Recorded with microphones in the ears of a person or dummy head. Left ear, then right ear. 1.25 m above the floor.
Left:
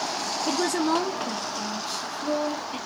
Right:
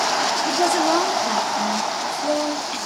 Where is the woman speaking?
5° left (ahead or behind), 0.5 m; by 2.8 s 65° right (ahead or behind), 1.4 m.